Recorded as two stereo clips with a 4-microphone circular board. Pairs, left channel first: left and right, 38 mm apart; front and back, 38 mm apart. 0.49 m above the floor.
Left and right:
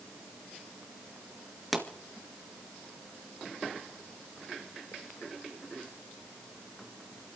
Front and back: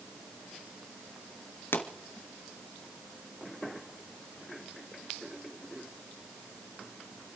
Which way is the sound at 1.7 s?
Straight ahead.